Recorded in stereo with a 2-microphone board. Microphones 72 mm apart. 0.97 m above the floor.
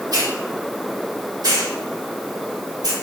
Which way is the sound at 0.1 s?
65° right (ahead or behind).